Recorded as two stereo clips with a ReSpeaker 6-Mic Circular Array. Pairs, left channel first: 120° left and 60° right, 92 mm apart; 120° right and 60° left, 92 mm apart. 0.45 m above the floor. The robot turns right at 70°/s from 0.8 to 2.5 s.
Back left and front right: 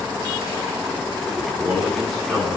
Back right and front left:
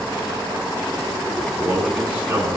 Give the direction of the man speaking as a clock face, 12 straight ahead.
1 o'clock.